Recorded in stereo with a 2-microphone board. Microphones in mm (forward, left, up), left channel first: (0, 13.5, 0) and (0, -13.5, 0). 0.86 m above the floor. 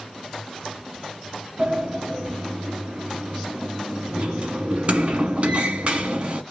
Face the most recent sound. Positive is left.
turn(degrees=-55)  # may be behind; listen again after turning